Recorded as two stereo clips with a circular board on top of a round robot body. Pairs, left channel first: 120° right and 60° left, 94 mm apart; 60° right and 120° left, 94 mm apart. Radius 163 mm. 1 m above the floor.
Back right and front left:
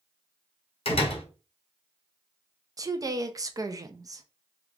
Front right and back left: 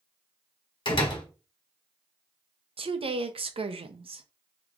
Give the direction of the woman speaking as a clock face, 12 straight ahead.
8 o'clock.